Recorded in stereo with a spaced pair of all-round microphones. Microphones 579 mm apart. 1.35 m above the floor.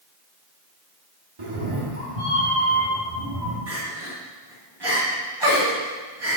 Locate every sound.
1.4 s a cat meowing: 60° right (ahead or behind), 1.4 m; by 3.6 s 75° right (ahead or behind), 3 m
3.7 s crying: 40° right (ahead or behind), 2.0 m